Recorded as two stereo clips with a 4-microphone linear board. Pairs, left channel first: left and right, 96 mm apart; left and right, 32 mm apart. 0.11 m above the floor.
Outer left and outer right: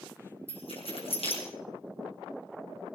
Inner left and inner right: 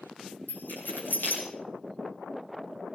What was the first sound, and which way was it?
Keys jangling, 75° left (ahead or behind).